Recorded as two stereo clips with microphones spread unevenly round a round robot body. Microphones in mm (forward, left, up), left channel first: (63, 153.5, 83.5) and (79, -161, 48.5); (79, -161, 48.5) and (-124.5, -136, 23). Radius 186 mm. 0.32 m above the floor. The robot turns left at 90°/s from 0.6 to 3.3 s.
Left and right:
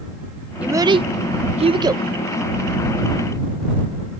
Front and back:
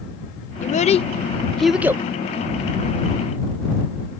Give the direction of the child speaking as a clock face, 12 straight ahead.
1 o'clock.